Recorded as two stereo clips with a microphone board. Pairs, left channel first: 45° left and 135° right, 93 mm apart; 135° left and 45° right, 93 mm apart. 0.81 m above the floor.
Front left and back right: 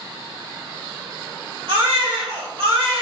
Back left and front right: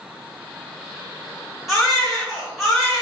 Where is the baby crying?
135° right, 1.9 m.